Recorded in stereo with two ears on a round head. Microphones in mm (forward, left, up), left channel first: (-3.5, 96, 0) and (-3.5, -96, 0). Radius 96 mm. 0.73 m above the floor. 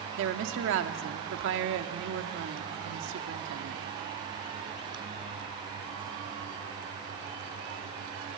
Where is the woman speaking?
60° right (ahead or behind), 1.6 m.